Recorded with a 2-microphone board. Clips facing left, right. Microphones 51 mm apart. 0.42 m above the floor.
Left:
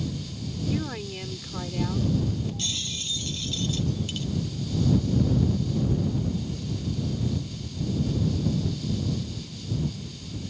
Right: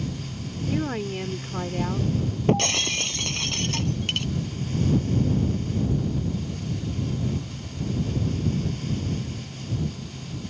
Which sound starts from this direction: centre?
A woman speaking, at 0.7 s.